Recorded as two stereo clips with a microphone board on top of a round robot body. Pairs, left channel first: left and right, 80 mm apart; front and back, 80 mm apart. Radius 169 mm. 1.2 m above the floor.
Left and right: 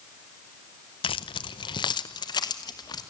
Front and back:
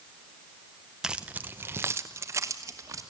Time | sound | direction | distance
1.0 | keys jangling | 95° left | 0.5 m